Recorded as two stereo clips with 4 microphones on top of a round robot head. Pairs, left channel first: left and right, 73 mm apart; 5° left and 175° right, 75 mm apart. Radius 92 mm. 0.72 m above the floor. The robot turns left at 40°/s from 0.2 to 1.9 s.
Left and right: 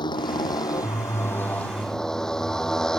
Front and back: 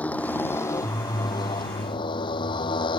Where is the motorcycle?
75° left; by 3.0 s 10° left.